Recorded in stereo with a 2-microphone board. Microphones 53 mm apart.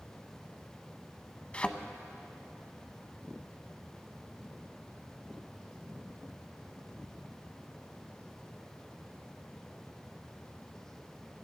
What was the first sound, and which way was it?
A thud, 25° left (ahead or behind).